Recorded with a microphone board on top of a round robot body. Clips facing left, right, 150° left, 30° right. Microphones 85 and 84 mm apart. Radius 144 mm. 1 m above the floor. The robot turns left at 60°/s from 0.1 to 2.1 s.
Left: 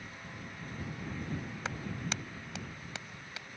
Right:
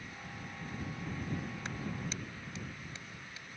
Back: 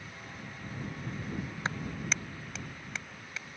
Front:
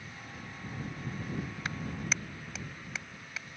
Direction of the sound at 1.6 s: 85° left.